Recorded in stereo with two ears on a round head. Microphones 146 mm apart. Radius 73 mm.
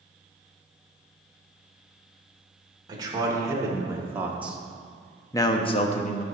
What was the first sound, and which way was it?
A man speaking, 25° right (ahead or behind).